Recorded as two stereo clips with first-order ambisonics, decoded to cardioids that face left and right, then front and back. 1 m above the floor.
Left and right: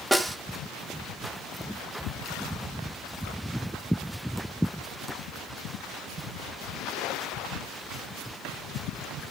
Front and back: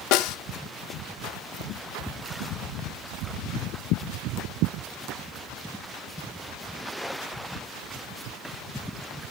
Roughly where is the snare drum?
Ahead.